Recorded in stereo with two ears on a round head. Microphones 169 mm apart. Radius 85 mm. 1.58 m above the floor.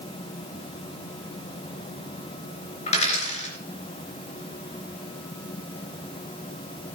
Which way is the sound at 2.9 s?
35° left (ahead or behind).